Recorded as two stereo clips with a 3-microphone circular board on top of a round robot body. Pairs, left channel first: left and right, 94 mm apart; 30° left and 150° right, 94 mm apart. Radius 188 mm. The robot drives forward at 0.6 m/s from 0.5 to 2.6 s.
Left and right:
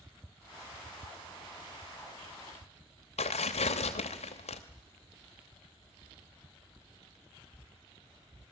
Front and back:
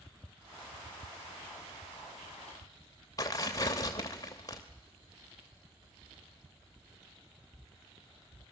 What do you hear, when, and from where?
3.2 s tearing paper: 90° left, 0.7 m